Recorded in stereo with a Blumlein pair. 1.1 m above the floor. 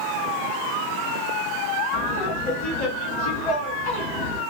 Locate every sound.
1.9 s laughter: 50° left, 1.1 m